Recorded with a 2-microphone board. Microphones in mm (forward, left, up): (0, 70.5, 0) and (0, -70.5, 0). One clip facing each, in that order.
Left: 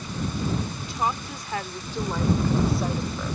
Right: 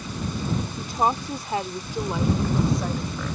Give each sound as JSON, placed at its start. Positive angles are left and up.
{"t": 0.8, "sound": "a woman speaking", "side_deg": -45}